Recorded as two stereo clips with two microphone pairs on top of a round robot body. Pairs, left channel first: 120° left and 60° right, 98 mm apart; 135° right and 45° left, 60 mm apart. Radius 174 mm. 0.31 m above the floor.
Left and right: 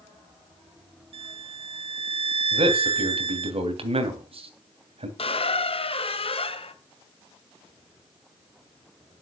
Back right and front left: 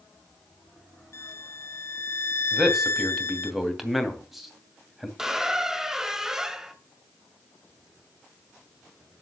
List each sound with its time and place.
1.1 s a violin: 85° right, 1.0 m
2.5 s a man speaking: 40° right, 3 m
5.2 s a squeak: 125° left, 1.4 m